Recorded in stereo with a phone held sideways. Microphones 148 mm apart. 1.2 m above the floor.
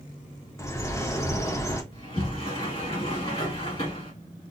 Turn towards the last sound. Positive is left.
turn(degrees=40)  # may be behind; listen again after turning